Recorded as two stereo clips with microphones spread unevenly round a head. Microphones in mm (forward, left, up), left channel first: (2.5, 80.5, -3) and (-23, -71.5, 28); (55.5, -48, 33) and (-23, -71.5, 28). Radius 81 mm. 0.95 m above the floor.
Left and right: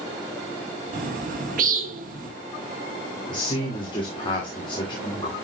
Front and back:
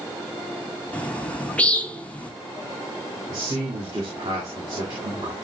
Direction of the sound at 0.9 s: 55° right.